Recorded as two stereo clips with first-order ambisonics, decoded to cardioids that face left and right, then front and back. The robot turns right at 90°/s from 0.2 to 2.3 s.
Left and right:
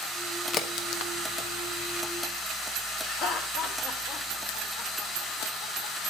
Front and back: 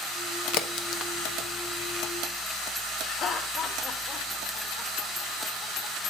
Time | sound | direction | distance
0.5 | a crack | 25° left | 0.7 m
3.0 | laughter | 60° left | 1.8 m